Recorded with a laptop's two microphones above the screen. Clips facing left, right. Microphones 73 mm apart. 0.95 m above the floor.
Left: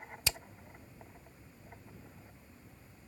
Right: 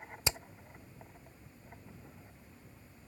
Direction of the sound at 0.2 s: 25° right (ahead or behind).